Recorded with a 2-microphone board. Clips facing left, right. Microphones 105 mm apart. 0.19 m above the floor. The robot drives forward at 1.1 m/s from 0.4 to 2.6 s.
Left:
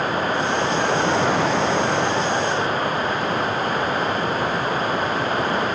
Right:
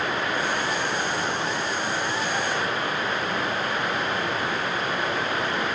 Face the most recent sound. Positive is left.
turn(degrees=40)  # may be behind; listen again after turning